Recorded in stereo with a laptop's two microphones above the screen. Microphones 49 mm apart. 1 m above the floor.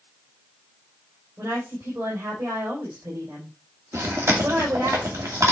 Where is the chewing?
80° right, 2 m.